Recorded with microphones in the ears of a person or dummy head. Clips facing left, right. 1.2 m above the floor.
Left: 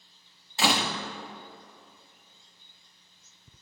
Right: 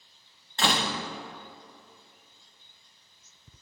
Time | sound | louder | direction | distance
0.6 | a door slam | left 1 dB | 5° left (ahead or behind) | 0.8 m